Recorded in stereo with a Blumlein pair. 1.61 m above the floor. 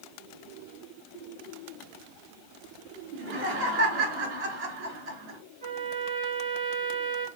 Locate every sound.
3.1 s laughter: 40° right, 4.5 m
5.6 s a trumpet: 50° right, 2.5 m